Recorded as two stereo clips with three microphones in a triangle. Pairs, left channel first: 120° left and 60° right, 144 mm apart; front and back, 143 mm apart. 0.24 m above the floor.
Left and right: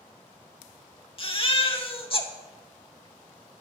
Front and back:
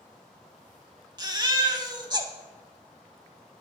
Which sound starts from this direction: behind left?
A baby crying, at 1.2 s.